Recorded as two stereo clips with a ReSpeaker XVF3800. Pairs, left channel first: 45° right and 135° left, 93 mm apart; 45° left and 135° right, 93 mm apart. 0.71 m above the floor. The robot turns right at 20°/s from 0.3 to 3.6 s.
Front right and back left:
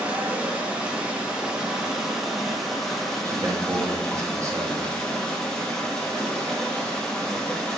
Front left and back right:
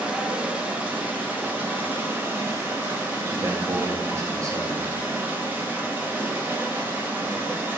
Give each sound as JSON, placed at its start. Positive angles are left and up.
{"t": 0.0, "sound": "running water", "azimuth_deg": 180, "distance_m": 0.8}
{"t": 3.2, "sound": "a man speaking", "azimuth_deg": 175, "distance_m": 0.9}